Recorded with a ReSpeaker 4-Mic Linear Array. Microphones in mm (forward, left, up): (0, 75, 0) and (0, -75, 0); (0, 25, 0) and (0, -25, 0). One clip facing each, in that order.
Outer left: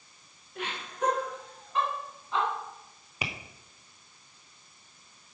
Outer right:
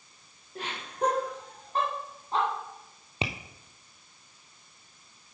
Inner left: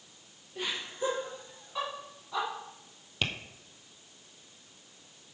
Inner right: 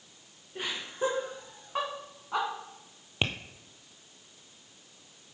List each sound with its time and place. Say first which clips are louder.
0.6 s laughter: outer right 2 dB, inner right 2 dB; 35° right (ahead or behind), 2.5 m; by 2.5 s 40° right (ahead or behind), 1.9 m
3.2 s tapping: outer right 4 dB, inner right 2 dB; 25° right (ahead or behind), 0.8 m